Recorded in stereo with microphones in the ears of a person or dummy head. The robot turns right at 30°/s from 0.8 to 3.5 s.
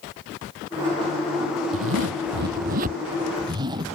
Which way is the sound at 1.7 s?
75° right.